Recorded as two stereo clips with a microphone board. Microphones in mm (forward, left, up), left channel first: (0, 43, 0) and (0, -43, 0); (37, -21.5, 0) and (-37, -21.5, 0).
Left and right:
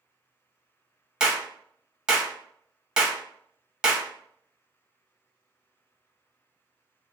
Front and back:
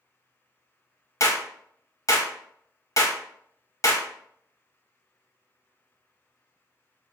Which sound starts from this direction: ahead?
A clap, at 1.2 s.